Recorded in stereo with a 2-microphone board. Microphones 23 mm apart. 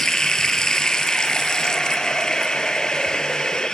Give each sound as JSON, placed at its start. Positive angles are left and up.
{"t": 0.0, "sound": "running water", "side_deg": 35, "distance_m": 1.0}